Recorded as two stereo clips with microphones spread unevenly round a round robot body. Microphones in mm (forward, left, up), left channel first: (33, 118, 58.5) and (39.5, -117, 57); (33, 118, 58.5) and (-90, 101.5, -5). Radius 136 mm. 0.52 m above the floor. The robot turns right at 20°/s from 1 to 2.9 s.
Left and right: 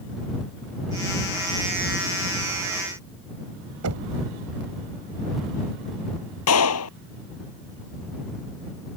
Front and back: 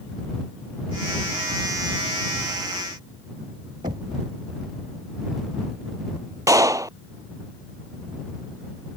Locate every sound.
3.8 s knocking: 110° right
6.5 s a clap: 125° left